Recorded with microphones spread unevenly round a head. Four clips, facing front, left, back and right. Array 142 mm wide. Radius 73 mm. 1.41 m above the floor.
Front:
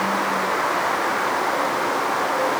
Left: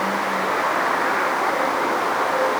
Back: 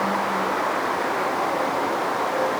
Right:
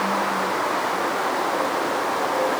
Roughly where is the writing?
No writing in this recording.